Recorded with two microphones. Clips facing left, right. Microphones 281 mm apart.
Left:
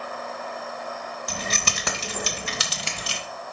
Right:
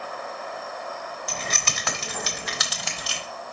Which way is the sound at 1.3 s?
45° left (ahead or behind).